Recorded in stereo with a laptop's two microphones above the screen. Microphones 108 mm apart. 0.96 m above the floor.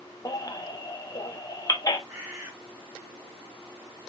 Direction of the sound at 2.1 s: 20° right (ahead or behind).